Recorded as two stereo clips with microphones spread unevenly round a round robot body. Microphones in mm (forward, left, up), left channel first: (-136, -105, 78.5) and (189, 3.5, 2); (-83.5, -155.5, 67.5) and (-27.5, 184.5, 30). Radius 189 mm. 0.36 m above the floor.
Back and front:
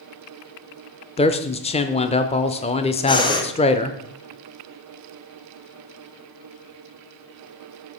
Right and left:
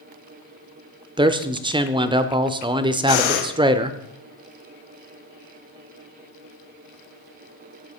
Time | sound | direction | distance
1.2 | a man speaking | 120° left | 0.8 m
3.1 | breathing | 80° right | 1.7 m